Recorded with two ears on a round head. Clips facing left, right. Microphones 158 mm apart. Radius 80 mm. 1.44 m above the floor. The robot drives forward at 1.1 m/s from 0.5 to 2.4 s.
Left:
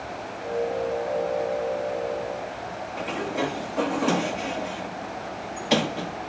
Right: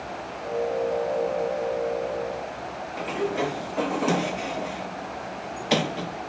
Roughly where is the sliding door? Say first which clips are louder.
Right 2 dB; centre.